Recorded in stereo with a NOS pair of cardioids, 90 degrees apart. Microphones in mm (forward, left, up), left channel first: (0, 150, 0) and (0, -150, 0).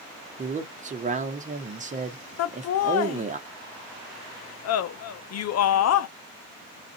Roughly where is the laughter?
Ahead left.